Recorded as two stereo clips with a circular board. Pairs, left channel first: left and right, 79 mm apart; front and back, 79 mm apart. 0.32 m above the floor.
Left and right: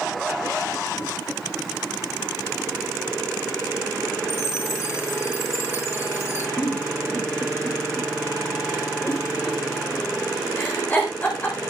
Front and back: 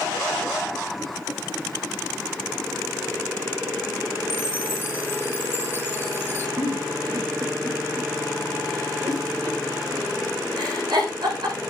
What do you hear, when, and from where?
4.3 s a chime: 55° left, 2 m
6.6 s a giggle: 155° left, 8 m